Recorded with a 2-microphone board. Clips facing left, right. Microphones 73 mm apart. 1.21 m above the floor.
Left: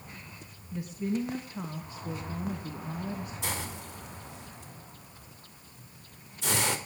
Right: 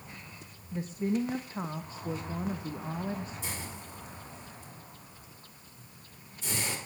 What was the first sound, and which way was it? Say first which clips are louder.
A woman speaking: right 1 dB; 35° right (ahead or behind).